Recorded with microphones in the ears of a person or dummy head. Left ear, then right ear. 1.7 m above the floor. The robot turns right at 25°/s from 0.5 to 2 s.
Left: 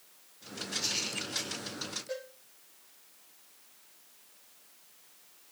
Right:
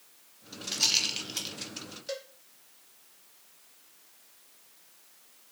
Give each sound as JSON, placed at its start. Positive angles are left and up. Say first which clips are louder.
{"t": 0.7, "sound": "a rattle", "louder": "right 7 dB", "side_deg": -50, "distance_m": 2.0}
{"t": 2.1, "sound": "a cowbell", "louder": "right 2 dB", "side_deg": -60, "distance_m": 2.5}